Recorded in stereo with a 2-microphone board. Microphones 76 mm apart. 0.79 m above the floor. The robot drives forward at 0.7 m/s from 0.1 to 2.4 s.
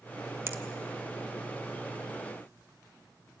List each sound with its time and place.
0.5 s a finger snap: 30° right (ahead or behind), 1.1 m